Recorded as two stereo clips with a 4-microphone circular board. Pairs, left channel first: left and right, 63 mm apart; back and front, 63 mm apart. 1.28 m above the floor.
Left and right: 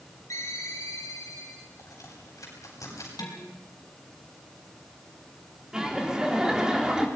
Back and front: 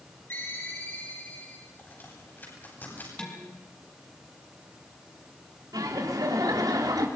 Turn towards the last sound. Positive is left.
turn(degrees=-10)